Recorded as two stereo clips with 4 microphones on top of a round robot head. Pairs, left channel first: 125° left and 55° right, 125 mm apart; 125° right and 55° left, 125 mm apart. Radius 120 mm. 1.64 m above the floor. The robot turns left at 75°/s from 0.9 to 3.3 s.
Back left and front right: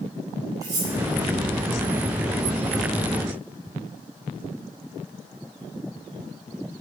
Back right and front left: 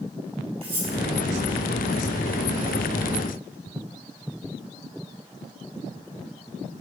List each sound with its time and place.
0.6 s cutlery clinking: 10° left, 5.5 m